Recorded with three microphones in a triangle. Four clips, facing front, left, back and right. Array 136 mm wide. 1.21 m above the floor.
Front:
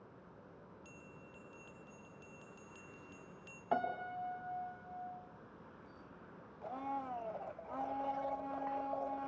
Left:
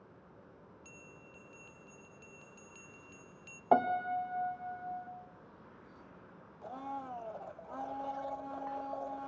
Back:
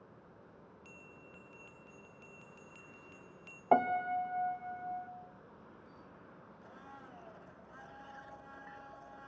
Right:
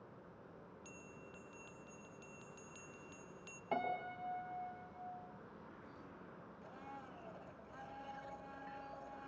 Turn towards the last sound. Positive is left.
turn(degrees=45)